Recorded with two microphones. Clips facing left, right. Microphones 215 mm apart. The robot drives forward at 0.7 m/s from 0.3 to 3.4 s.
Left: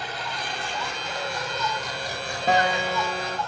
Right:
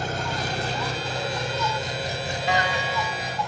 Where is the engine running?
45° right (ahead or behind), 1.3 m; by 3.5 s 15° right (ahead or behind), 3 m.